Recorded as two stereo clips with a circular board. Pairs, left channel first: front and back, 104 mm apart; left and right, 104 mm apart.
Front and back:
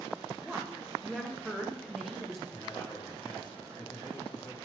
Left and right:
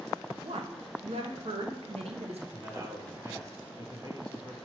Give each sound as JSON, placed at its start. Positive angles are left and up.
{"t": 0.4, "sound": "a woman speaking", "azimuth_deg": -90, "distance_m": 1.1}
{"t": 2.5, "sound": "a man speaking", "azimuth_deg": -40, "distance_m": 1.9}